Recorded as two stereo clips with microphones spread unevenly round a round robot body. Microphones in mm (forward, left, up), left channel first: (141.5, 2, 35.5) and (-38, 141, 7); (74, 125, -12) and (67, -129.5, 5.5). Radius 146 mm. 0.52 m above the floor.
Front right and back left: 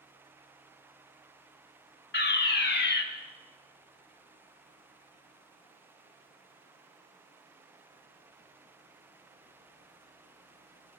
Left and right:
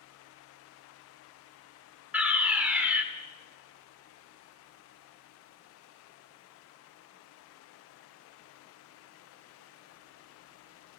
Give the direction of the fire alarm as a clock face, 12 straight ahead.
12 o'clock.